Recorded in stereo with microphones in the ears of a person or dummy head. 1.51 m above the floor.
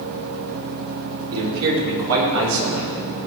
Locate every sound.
1.3 s a man speaking: 75° right (ahead or behind), 4.5 m; by 3.1 s 85° right, 5.5 m